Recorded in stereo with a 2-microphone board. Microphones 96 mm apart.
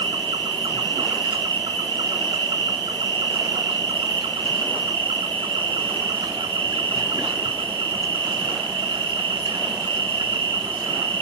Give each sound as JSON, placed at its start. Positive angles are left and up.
{"t": 0.0, "sound": "an insect", "side_deg": -60, "distance_m": 0.9}